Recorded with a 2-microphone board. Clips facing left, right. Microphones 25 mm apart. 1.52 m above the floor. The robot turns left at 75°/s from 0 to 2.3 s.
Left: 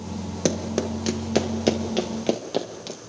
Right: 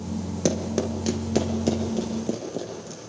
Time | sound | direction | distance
0.5 | running footsteps | 15° left (ahead or behind) | 1.6 m